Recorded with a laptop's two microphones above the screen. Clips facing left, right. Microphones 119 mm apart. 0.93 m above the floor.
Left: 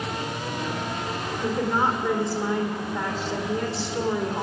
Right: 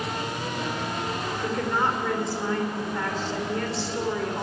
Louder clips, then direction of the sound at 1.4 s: Left 3 dB; 15° left (ahead or behind).